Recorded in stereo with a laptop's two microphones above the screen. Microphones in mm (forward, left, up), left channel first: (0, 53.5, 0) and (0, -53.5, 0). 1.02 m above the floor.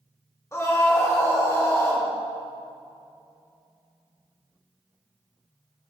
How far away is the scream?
About 2.0 m.